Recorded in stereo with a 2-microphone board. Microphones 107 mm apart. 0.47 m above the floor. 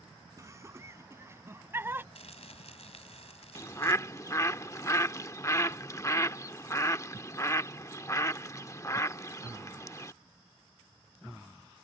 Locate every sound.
0.4 s laughter: 30° right (ahead or behind); by 2.0 s 20° right (ahead or behind)
2.1 s crumpling: 75° left (ahead or behind)
3.5 s a bird: 30° left (ahead or behind)